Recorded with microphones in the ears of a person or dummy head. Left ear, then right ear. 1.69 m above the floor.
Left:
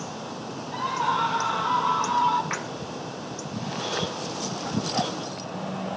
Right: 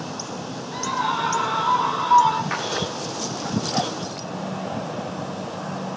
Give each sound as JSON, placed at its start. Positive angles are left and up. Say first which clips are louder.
{"t": 0.7, "sound": "a scream", "louder": "right 1 dB", "side_deg": 15, "distance_m": 6.5}
{"t": 2.5, "sound": "a splash", "louder": "right 4 dB", "side_deg": 15, "distance_m": 3.0}